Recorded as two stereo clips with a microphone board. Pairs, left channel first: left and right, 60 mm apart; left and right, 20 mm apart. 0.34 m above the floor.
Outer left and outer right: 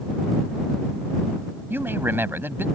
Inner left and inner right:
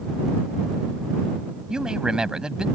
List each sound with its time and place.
1.7 s a man speaking: 40° right (ahead or behind)